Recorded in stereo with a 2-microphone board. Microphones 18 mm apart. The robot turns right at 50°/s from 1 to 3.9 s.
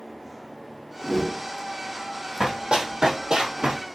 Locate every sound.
1.0 s a whoosh: 15° left (ahead or behind), 0.7 m; by 1.4 s 30° left (ahead or behind), 0.7 m
2.4 s running footsteps: 55° right (ahead or behind), 2.5 m